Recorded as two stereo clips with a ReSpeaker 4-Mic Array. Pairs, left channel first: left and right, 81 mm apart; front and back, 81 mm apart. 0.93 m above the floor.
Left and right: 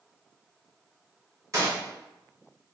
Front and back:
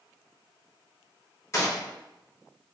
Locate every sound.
1.5 s a gunshot: 45° right, 1.3 m